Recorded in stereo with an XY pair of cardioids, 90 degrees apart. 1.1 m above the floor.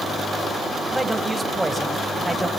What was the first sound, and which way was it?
A man speaking, 15° right.